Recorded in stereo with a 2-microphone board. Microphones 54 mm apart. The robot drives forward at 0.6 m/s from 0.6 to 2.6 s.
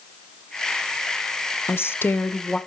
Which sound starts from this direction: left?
A woman speaking, at 1.7 s.